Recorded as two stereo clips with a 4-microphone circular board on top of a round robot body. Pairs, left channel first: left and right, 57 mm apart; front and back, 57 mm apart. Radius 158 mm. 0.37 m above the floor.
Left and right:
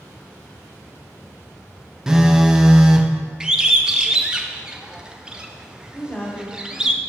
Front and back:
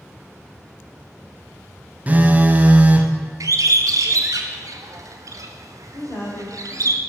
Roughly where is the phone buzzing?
Behind.